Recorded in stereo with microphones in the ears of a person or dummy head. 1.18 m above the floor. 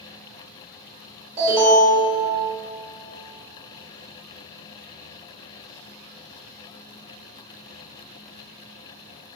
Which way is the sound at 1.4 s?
35° right (ahead or behind).